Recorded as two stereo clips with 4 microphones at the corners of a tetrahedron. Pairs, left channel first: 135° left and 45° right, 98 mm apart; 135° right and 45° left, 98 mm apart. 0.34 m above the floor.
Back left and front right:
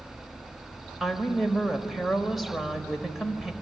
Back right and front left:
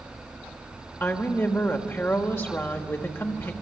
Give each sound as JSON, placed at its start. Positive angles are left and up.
{"t": 1.0, "sound": "a woman speaking", "azimuth_deg": -130, "distance_m": 1.5}